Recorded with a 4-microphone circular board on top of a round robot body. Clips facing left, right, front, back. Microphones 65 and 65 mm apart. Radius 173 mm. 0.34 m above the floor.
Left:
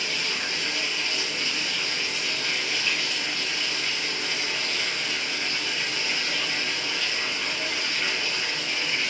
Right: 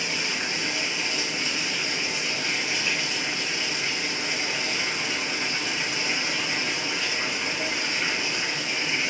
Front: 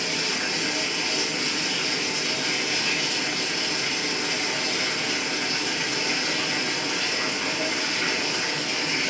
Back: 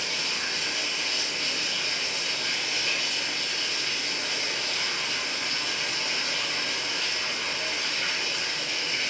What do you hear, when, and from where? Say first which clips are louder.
0.0 s running water: right 1 dB, front 4 dB; 20° right, 1.9 m